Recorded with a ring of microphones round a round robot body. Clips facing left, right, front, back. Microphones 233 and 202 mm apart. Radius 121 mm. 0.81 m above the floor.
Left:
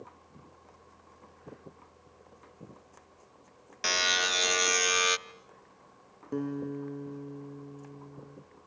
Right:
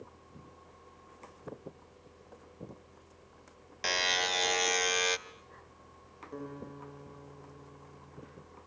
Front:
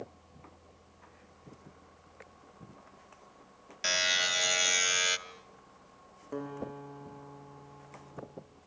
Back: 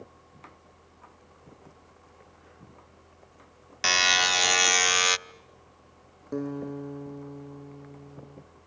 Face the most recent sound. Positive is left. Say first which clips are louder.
# left 10 dB, back 7 dB
turn(degrees=125)